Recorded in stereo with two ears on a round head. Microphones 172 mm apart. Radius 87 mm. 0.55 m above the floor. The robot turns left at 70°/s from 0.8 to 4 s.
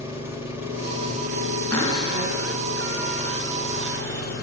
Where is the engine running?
15° right, 2 m; by 4.5 s 120° left, 2 m.